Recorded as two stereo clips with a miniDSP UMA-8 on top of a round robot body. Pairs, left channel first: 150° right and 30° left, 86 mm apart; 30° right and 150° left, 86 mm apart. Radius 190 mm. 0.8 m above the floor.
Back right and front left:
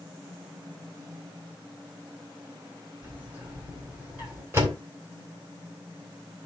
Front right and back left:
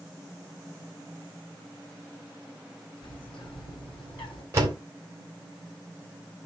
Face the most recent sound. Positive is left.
turn(degrees=90)